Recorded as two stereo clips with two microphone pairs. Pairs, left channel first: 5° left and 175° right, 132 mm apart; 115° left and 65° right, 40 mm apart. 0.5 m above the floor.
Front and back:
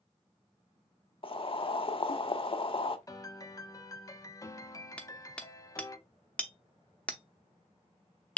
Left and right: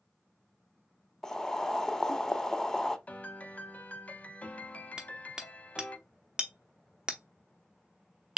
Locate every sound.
1.2 s boiling: 40° left, 0.5 m
3.1 s a piano: 65° left, 0.5 m
5.0 s hammering: 60° right, 0.8 m